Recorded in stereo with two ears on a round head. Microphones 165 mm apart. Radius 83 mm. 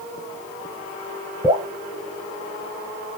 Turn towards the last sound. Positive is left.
turn(degrees=-15)  # may be behind; listen again after turning